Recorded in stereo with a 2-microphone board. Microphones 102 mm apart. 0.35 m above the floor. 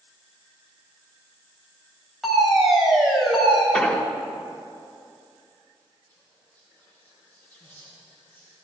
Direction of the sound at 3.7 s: 5° left (ahead or behind).